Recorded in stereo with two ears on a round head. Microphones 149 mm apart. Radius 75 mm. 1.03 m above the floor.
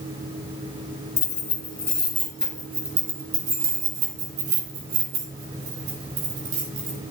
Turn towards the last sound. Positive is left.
turn(degrees=-75)  # may be behind; listen again after turning